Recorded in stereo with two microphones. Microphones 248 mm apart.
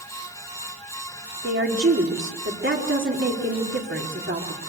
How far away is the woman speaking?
About 4 m.